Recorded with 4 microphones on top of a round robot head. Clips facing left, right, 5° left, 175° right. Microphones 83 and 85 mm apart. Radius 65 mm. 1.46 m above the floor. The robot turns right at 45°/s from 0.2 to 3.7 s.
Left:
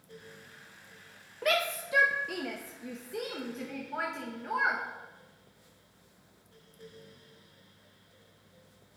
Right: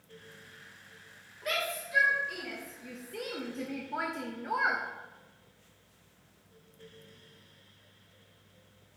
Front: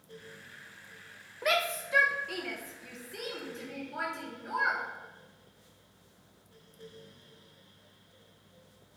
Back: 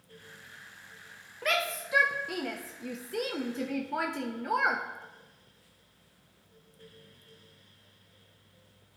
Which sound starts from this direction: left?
A shout, at 1.4 s.